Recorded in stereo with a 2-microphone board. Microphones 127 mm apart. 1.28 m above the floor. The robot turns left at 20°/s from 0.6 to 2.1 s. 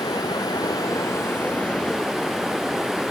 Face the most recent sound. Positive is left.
turn(degrees=0)